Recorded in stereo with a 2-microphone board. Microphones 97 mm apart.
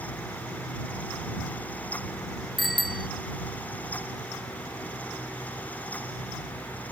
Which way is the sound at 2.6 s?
Centre (ahead or behind).